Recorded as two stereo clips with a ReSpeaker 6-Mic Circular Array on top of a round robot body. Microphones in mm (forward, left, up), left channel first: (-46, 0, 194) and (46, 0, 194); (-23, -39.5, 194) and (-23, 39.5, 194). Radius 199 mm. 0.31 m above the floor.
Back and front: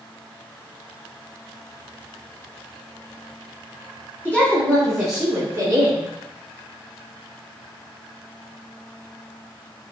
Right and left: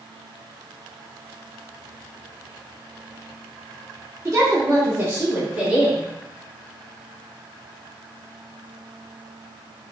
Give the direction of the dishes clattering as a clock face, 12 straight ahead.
No dishes clattering in this recording.